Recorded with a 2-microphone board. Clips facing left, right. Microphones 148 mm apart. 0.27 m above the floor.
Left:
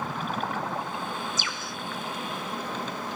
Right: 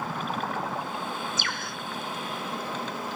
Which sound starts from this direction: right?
A bird, at 1.4 s.